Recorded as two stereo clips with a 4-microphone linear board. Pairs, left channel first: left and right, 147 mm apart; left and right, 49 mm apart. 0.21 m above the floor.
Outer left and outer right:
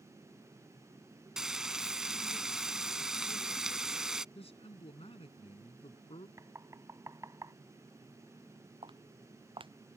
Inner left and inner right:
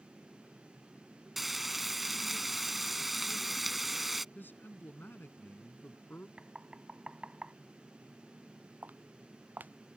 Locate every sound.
1.4 s frying: 5° right (ahead or behind)
4.3 s a man speaking: 45° left (ahead or behind)
6.4 s knocking: 20° right (ahead or behind)
8.8 s footsteps: 35° right (ahead or behind)